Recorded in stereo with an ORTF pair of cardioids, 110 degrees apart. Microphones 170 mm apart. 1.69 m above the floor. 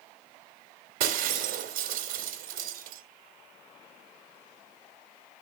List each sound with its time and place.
1.0 s breaking glass: 60° right, 3 m